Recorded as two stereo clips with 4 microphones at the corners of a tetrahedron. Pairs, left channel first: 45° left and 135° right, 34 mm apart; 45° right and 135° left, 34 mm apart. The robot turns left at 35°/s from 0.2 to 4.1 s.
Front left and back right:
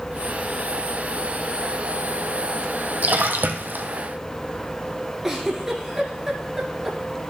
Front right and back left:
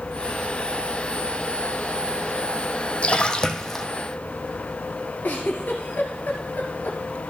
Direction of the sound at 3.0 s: 100° right.